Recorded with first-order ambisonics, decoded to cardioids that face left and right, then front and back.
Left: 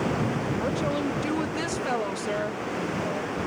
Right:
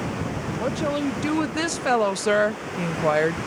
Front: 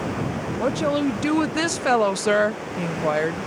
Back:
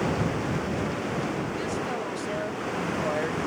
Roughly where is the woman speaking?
Ahead.